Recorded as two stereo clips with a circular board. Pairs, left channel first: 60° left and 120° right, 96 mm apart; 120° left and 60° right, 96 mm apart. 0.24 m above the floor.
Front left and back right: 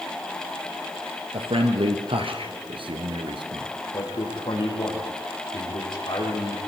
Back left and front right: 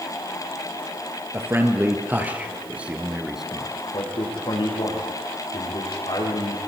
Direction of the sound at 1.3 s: 125° right.